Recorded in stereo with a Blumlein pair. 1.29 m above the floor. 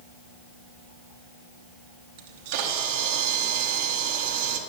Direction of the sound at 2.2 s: 50° right.